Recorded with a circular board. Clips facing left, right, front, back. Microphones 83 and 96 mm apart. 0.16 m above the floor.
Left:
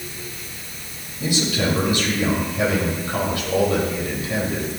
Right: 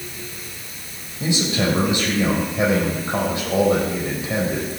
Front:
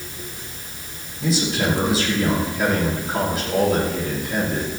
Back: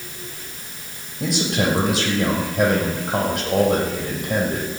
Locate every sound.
1.2 s a man speaking: 155° right, 6.5 m